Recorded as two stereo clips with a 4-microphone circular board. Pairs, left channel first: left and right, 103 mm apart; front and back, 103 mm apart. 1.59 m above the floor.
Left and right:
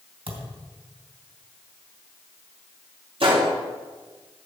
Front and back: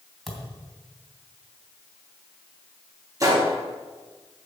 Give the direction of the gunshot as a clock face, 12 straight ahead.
4 o'clock.